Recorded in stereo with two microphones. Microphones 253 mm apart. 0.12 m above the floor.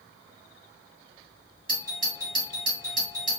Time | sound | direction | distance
1.7 | a doorbell | 35° right (ahead or behind) | 2 m